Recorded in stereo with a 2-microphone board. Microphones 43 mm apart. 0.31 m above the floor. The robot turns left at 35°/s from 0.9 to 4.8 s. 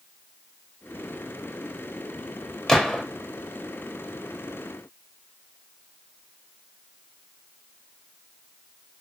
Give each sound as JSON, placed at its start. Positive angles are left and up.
{"t": 2.7, "sound": "a gunshot", "side_deg": 10, "distance_m": 0.6}